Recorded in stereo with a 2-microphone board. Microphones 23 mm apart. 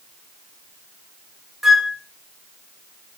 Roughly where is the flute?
Centre.